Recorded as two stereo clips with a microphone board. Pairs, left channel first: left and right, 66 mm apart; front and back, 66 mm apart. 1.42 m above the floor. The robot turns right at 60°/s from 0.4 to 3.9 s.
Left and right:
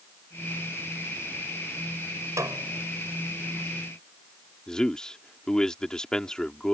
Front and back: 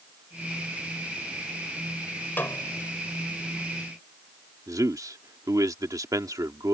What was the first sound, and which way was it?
A snare drum, 60° right.